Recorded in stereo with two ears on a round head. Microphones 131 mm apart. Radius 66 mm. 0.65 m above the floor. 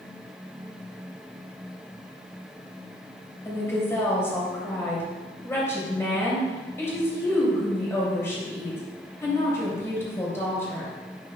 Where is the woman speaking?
20° left (ahead or behind), 3 m.